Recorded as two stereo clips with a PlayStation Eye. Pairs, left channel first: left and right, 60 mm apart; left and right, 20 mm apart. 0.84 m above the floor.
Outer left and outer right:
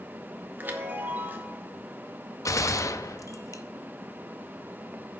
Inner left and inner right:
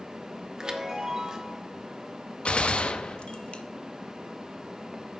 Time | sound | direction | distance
0.6 | a chime | 30° right (ahead or behind) | 1.1 m
2.5 | a gunshot | 65° left (ahead or behind) | 0.6 m